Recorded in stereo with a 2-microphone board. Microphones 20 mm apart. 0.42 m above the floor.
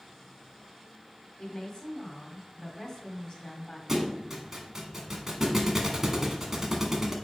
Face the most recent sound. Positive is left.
turn(degrees=-20)  # may be behind; listen again after turning